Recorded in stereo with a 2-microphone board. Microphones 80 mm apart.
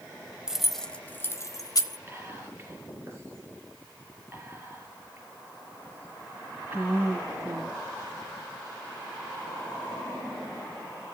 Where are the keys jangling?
10° right (ahead or behind), 0.8 m; by 2.0 s 55° left (ahead or behind), 1.0 m.